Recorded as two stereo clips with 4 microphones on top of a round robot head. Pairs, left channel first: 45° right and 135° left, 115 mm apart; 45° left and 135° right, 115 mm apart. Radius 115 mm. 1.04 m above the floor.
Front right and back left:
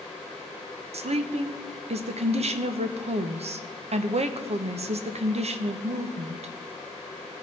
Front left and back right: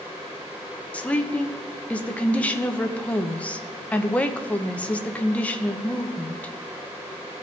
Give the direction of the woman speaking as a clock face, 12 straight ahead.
8 o'clock.